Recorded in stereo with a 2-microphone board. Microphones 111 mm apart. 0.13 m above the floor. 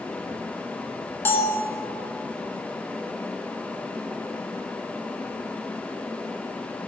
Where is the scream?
I don't hear a scream.